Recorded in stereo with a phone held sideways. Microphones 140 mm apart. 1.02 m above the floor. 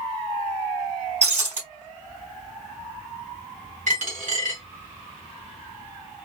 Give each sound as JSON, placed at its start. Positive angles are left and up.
{"t": 1.2, "sound": "breaking glass", "side_deg": -55, "distance_m": 3.5}
{"t": 3.9, "sound": "a dropped coin", "side_deg": -65, "distance_m": 2.0}